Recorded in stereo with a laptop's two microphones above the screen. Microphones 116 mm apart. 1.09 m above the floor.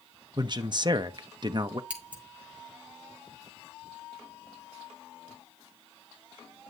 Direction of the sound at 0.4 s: 40° right (ahead or behind).